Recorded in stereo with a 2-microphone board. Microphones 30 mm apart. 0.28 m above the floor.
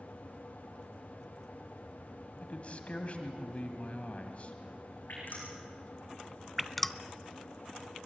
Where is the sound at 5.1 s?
85° left, 8.5 m.